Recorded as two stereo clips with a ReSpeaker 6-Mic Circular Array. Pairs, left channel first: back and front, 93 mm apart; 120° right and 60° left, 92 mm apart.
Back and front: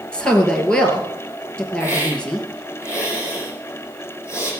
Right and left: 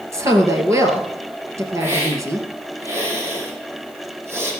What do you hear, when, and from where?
0.1 s a woman speaking: 105° left, 2 m
1.8 s a hiss: 125° left, 3.5 m